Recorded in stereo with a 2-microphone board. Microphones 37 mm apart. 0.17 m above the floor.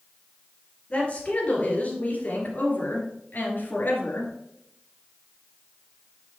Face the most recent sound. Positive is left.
turn(degrees=65)  # may be behind; listen again after turning